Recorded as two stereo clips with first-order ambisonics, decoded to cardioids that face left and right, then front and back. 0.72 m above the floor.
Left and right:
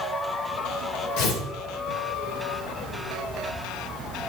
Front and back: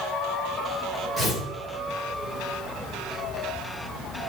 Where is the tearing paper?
90° left, 3.5 m.